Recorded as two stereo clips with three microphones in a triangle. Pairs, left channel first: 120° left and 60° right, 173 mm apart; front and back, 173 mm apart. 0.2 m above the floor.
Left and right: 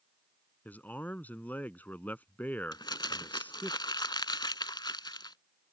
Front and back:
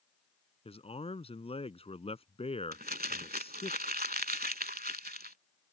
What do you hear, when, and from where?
0.7 s a man speaking: 40° left
2.7 s crumpling: straight behind